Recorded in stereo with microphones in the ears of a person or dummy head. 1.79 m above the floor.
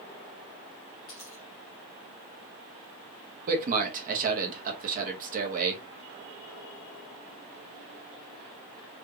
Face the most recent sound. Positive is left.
turn(degrees=-40)  # may be behind; listen again after turning